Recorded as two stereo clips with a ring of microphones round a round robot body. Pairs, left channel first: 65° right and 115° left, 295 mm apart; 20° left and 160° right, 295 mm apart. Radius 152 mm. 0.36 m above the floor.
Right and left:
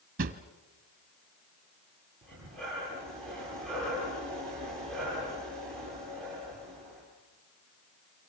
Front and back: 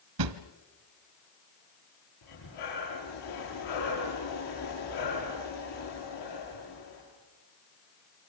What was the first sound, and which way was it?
A drawer, 175° left.